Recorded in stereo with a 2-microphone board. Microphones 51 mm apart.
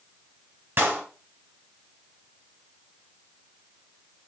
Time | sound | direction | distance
0.8 | a clap | 40° right (ahead or behind) | 3 m